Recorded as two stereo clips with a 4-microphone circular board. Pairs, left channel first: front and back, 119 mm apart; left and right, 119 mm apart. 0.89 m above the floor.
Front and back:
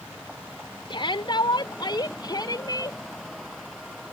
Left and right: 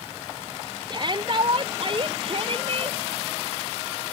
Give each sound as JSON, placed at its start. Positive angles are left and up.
{"t": 0.9, "sound": "a shout", "azimuth_deg": -45}